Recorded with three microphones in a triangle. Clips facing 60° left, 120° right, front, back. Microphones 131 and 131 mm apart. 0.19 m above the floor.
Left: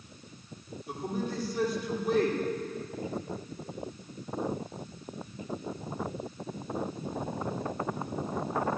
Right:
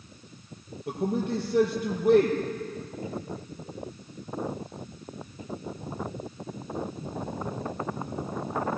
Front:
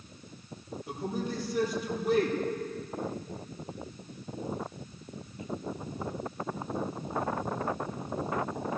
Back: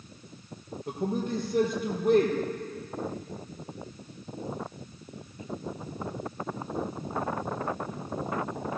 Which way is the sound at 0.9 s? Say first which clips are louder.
Right 6 dB, back 4 dB; 145° right.